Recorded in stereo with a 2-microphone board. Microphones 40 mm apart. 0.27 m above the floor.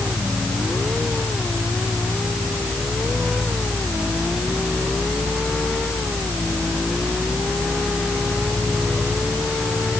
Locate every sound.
Only background noise.